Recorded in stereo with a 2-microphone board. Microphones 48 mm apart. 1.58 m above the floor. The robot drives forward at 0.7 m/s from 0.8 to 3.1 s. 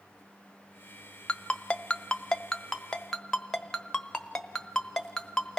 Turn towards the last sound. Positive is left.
turn(degrees=10)  # may be behind; listen again after turning